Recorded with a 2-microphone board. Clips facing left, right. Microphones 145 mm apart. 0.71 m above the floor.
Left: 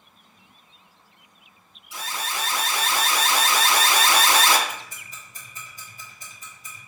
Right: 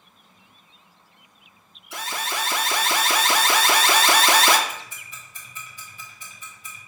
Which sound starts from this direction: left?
Ticking, at 4.7 s.